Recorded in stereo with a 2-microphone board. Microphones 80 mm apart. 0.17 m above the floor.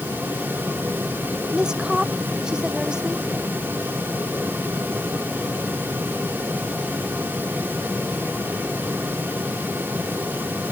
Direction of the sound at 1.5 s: 10° right (ahead or behind).